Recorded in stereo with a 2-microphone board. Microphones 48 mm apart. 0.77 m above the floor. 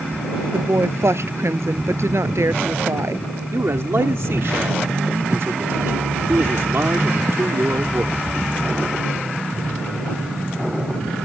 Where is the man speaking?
65° right (ahead or behind).